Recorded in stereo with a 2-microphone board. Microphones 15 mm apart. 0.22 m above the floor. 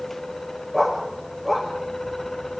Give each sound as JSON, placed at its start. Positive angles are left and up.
{"t": 0.7, "sound": "a dog barking", "side_deg": 10, "distance_m": 6.5}